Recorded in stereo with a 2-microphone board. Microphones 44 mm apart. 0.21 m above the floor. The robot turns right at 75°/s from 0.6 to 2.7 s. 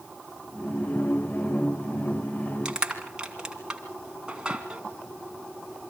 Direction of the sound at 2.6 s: 20° right (ahead or behind).